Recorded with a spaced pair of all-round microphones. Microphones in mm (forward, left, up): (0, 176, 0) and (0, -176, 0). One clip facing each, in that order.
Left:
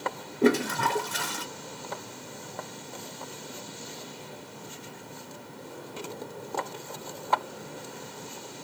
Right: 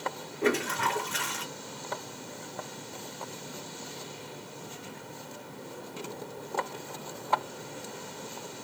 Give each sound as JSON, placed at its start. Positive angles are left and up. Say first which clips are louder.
{"t": 0.4, "sound": "a toilet flushing", "louder": "left 5 dB", "side_deg": 55, "distance_m": 0.7}